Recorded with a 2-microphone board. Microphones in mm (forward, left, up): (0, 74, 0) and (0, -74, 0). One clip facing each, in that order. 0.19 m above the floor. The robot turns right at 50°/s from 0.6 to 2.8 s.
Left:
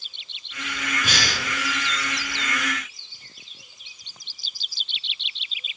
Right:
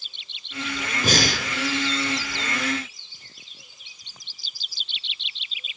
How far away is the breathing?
About 1.5 m.